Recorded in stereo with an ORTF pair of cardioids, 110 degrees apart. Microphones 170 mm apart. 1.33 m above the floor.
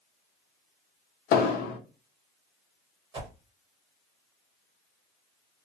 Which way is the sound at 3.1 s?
30° right.